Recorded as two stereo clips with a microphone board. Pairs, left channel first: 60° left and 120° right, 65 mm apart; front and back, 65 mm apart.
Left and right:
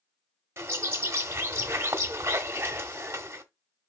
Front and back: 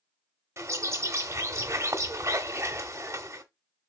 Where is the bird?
150° right, 0.9 m.